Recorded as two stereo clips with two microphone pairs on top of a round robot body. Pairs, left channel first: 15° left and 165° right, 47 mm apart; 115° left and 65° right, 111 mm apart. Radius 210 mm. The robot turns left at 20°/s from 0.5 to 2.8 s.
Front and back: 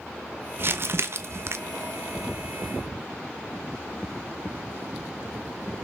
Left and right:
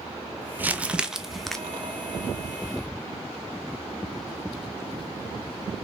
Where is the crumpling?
135° right, 0.5 m; by 1.6 s 150° right, 0.5 m.